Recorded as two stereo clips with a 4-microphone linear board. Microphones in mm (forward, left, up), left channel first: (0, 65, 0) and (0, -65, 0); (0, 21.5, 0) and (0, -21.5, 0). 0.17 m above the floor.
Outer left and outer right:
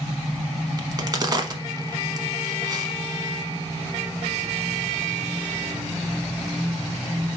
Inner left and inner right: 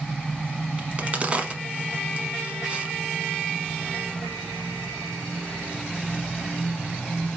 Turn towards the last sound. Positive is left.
turn(degrees=-30)  # may be behind; listen again after turning